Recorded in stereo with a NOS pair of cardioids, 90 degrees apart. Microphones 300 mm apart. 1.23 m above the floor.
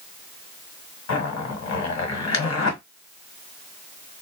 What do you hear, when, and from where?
1.1 s a zipper: 60° left, 1.4 m